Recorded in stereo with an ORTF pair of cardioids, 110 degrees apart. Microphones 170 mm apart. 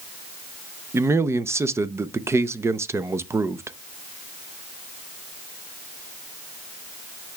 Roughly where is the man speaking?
Ahead.